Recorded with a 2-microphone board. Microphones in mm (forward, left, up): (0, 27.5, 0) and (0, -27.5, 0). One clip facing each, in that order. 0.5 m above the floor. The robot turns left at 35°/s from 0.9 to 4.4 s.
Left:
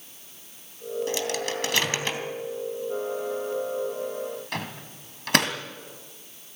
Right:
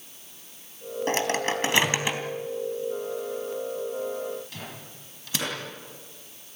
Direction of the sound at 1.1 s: 50° right (ahead or behind).